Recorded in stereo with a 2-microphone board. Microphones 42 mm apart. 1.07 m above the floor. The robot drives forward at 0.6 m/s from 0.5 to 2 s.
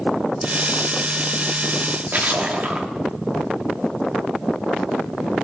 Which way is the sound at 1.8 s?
40° right (ahead or behind).